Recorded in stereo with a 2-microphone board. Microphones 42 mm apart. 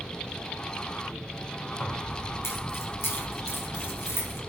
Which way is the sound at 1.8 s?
60° left (ahead or behind).